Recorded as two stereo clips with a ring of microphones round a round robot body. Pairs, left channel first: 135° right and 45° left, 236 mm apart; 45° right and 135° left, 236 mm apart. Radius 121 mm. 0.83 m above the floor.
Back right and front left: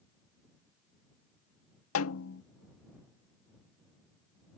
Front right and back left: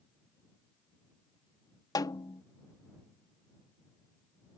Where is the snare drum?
120° right.